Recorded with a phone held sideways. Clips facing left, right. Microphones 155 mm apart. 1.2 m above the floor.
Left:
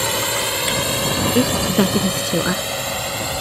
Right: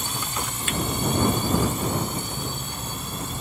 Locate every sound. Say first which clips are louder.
0.0 s a drone: left 9 dB; 75° left (ahead or behind)
1.4 s a woman speaking: left 8 dB; 85° left